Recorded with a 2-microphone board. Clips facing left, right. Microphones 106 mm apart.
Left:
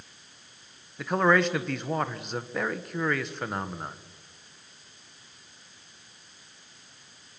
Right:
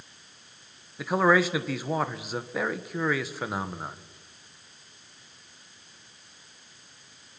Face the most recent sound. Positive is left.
turn(degrees=-5)  # may be behind; listen again after turning